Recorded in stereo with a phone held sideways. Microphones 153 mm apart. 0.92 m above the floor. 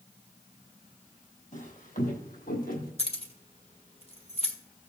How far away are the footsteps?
About 2.5 m.